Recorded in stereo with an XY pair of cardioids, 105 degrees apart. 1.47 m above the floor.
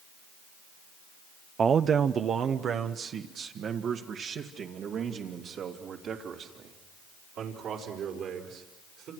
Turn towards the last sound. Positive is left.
turn(degrees=-70)